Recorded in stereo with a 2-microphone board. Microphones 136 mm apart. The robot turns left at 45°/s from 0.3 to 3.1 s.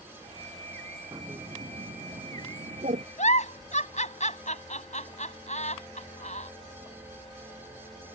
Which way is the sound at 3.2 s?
60° left (ahead or behind).